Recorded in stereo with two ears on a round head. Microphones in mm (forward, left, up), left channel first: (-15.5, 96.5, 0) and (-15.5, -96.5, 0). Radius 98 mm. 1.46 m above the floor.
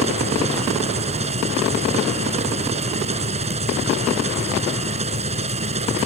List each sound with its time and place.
0.0 s an engine running: 30° right (ahead or behind)